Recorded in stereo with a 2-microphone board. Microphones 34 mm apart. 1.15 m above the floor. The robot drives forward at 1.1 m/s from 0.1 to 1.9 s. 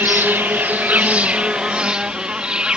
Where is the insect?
70° right (ahead or behind); by 2.8 s 30° right (ahead or behind).